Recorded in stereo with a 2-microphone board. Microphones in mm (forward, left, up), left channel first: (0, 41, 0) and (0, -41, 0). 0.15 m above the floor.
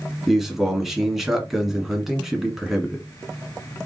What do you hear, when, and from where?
0.3 s a man speaking: 5° right (ahead or behind), 1.3 m